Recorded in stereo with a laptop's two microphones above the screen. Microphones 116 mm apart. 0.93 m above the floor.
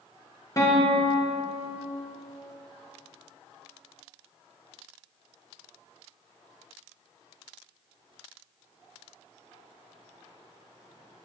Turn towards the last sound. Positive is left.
turn(degrees=30)  # may be behind; listen again after turning